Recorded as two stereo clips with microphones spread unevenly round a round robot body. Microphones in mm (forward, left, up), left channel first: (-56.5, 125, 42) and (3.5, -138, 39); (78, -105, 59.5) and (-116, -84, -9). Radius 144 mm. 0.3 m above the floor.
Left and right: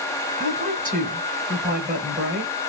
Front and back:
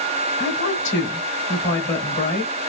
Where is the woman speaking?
25° right, 2 m.